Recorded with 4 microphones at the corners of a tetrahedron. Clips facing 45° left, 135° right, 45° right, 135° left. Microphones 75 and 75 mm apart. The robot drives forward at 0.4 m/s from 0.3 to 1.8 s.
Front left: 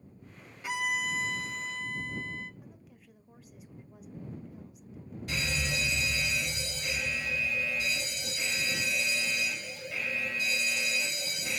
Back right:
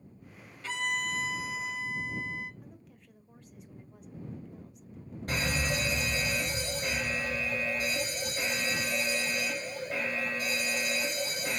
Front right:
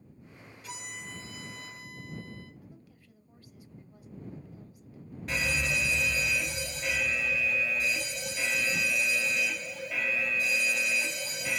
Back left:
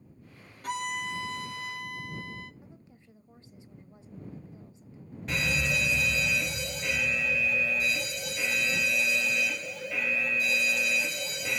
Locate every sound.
0.6 s a violin: 120° left, 0.6 m; by 2.5 s 145° left, 0.9 m
2.6 s a woman speaking: 130° left, 1.0 m
5.3 s a fire alarm: 135° right, 3 m